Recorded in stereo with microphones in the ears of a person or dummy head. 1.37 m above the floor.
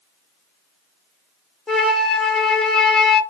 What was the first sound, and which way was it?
A flute, 10° left (ahead or behind).